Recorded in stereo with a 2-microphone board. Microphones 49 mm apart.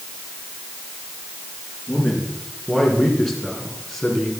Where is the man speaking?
10° left (ahead or behind), 4.5 m; by 4.3 s 5° left (ahead or behind), 3 m.